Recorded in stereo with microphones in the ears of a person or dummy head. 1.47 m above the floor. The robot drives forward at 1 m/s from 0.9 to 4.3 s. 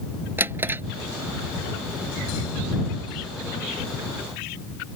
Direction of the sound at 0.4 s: 10° right (ahead or behind).